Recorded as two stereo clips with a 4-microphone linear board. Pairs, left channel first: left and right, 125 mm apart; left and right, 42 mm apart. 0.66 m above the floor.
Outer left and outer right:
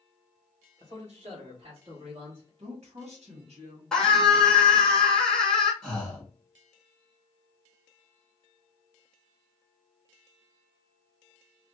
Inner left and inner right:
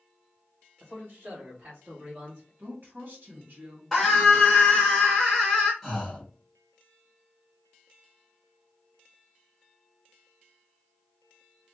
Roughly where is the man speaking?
Right.